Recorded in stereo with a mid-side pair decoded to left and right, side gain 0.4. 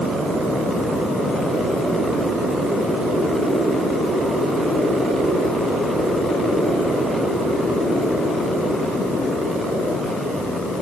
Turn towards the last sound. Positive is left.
No sound to turn to.